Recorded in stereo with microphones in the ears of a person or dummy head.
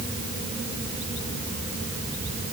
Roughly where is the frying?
No frying in this recording.